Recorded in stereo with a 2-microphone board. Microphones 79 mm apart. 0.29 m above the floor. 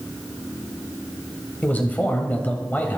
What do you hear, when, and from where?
1.6 s a man speaking: 20° left (ahead or behind), 1.5 m